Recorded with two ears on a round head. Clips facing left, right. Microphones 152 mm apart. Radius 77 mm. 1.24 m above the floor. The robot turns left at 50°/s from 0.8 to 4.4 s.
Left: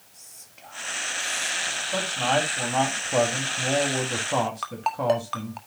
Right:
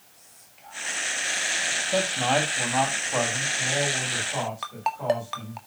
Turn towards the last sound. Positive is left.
turn(degrees=-5)  # may be behind; listen again after turning